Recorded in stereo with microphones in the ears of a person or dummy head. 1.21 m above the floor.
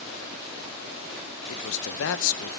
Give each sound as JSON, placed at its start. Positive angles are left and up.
{"t": 1.5, "sound": "a man speaking", "side_deg": 70, "distance_m": 0.8}